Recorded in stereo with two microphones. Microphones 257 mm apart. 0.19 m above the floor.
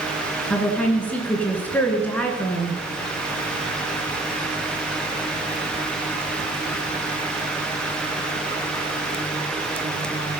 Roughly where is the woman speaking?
Centre.